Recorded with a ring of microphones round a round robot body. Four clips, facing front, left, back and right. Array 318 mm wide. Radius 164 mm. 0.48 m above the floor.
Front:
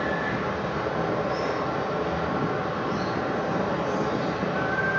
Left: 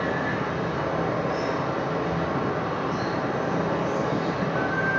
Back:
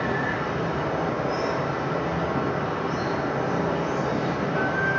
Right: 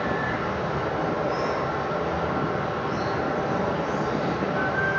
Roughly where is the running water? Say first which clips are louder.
Even, back 1 dB; left.